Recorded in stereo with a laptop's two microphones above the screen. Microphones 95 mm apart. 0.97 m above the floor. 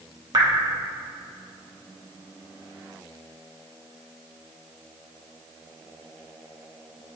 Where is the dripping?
45° right (ahead or behind), 0.8 m.